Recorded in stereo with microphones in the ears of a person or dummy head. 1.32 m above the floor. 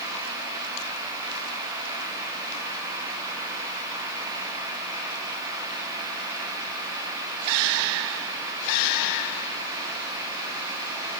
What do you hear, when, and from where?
Only background noise.